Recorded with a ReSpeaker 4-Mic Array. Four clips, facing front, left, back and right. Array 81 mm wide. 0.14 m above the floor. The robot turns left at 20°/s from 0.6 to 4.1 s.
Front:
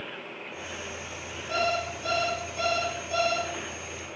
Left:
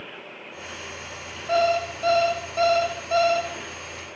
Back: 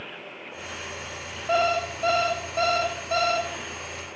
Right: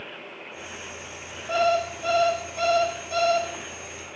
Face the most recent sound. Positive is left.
turn(degrees=115)